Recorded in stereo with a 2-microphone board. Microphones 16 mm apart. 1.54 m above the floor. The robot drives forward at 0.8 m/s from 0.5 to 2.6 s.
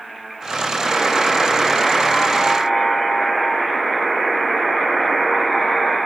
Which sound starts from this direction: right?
A buzzer, at 0.8 s.